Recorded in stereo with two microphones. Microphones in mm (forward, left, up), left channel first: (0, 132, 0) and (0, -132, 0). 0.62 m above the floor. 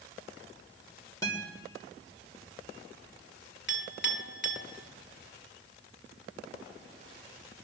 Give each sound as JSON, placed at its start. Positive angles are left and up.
{"t": 1.2, "sound": "a guitar", "side_deg": 10, "distance_m": 2.5}
{"t": 3.7, "sound": "a clink", "side_deg": 40, "distance_m": 1.4}